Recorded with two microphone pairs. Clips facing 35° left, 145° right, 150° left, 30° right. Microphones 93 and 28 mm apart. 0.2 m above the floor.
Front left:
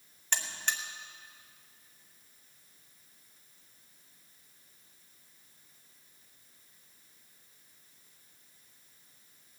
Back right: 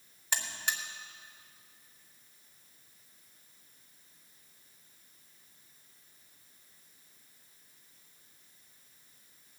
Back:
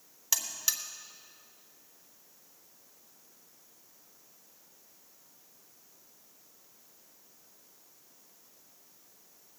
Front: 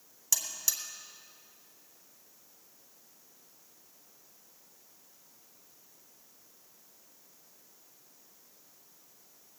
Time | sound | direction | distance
0.3 | a buzzer | 150° left | 1.2 m